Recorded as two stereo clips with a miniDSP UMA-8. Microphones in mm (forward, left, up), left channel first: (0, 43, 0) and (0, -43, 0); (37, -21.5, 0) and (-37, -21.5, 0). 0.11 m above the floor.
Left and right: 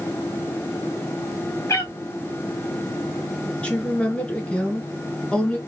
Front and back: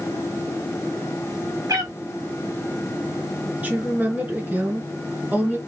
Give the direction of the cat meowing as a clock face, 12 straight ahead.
7 o'clock.